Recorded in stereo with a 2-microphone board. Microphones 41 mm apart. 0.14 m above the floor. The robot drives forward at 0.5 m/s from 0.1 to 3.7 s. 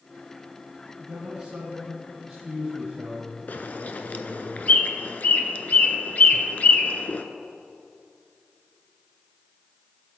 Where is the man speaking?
20° right (ahead or behind), 1.6 m; by 4.5 s 15° right (ahead or behind), 2.5 m.